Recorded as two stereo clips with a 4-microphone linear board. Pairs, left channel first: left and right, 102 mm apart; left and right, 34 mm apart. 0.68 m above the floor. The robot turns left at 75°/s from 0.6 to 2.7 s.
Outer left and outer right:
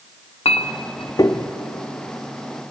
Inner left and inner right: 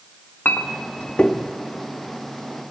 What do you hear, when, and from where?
0.5 s a clink: 80° left, 0.6 m; by 1.5 s 15° left (ahead or behind), 0.6 m